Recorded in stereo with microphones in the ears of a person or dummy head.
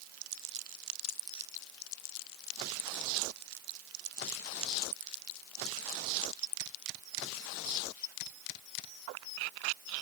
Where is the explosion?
No explosion in this recording.